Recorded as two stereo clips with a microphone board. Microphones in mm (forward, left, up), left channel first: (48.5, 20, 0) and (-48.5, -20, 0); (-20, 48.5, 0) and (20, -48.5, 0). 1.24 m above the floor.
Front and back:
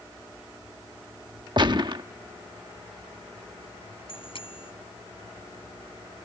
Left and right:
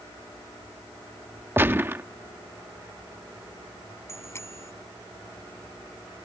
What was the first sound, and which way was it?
A gunshot, 130° right.